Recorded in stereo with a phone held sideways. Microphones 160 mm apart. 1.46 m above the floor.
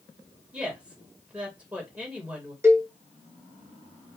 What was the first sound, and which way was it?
A woman speaking, 10° right (ahead or behind).